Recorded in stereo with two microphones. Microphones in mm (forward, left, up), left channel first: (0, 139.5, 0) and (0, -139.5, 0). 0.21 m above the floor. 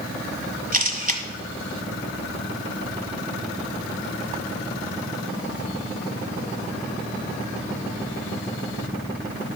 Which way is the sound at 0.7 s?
30° right (ahead or behind).